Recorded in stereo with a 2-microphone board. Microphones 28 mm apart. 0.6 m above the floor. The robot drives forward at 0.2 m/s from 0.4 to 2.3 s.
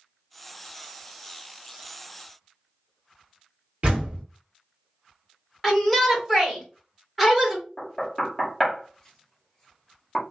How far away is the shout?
About 1.6 m.